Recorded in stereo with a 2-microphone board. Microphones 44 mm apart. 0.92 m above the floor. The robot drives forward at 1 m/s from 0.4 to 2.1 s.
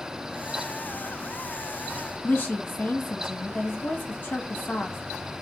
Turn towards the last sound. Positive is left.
turn(degrees=45)  # may be behind; listen again after turning